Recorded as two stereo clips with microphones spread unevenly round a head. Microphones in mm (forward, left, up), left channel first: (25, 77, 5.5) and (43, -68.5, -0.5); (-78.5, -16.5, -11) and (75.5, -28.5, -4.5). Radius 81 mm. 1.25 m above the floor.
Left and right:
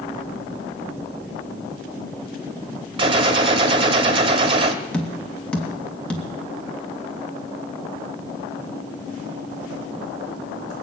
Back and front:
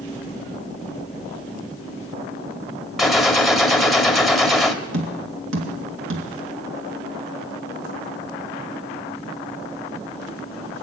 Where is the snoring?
I don't hear snoring.